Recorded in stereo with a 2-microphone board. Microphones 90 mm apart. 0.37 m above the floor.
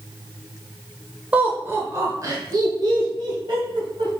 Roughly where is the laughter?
Centre.